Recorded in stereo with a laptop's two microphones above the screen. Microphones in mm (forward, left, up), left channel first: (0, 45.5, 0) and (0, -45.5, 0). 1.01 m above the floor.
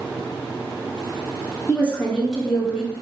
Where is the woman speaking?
20° left (ahead or behind), 1.7 m; by 2.9 s 15° right (ahead or behind), 1.3 m.